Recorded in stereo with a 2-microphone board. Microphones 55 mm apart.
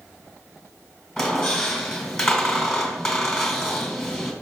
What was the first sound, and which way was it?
A squeak, 5° left (ahead or behind).